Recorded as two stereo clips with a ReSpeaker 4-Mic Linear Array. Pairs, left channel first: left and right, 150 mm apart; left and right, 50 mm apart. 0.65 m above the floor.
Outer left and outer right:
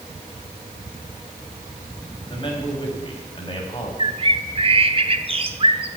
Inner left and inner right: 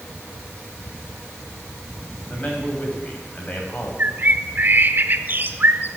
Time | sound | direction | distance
2.3 | a man speaking | 35° left (ahead or behind) | 4.5 m
4.0 | a bird | 40° right (ahead or behind) | 1.0 m